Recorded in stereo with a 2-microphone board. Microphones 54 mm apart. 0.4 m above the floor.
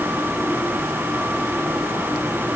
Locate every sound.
Only background noise.